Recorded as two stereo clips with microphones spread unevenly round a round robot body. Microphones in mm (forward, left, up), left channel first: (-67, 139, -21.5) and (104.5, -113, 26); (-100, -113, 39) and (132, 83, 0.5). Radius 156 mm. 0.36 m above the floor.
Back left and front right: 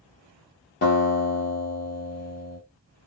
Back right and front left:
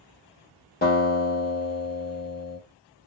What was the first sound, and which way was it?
A guitar, 160° left.